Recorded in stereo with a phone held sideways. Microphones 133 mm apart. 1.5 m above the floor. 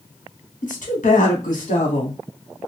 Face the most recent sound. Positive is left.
turn(degrees=75)  # may be behind; listen again after turning